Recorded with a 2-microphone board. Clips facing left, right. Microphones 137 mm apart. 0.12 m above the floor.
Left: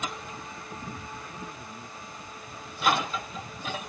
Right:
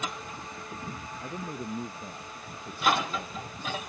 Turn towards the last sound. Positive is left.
turn(degrees=-55)  # may be behind; listen again after turning